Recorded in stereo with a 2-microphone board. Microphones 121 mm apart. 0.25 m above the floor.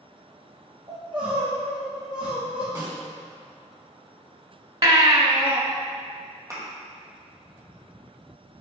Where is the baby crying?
45° right (ahead or behind), 0.8 m.